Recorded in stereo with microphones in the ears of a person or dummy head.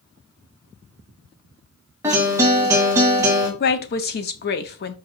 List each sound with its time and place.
2.0 s a guitar: 15° right (ahead or behind), 0.9 m
3.6 s a woman speaking: 50° left (ahead or behind), 0.6 m